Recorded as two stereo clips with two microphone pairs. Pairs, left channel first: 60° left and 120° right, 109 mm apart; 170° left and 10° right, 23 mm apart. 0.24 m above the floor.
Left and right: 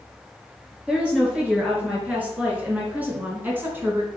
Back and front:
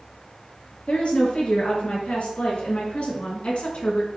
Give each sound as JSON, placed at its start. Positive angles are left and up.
{"t": 0.9, "sound": "a woman speaking", "azimuth_deg": 160, "distance_m": 4.5}